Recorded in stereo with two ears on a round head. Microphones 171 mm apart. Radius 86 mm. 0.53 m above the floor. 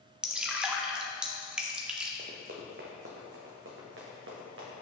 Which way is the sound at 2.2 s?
40° right (ahead or behind).